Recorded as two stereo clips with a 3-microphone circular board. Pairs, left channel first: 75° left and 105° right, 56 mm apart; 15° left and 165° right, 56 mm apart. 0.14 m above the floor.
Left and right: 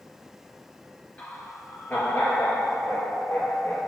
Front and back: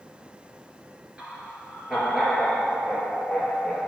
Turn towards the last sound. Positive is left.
turn(degrees=95)